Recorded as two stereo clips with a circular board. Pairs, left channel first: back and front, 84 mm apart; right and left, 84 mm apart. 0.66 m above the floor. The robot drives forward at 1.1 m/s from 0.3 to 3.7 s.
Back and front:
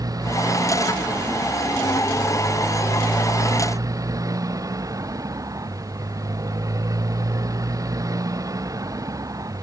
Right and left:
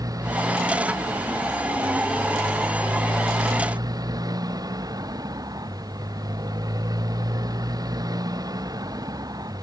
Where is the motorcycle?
45° left; by 9.6 s 50° left.